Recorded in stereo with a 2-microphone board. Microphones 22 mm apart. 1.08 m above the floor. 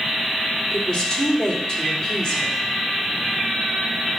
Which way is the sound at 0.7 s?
20° left (ahead or behind).